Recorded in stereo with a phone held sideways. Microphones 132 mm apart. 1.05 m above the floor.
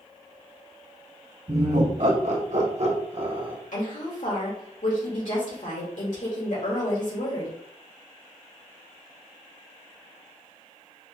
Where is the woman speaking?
75° left (ahead or behind), 2.0 m.